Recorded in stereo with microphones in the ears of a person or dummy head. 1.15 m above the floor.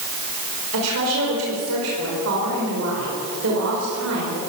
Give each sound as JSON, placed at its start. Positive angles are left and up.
{"t": 0.7, "sound": "a woman speaking", "side_deg": -80, "distance_m": 5.0}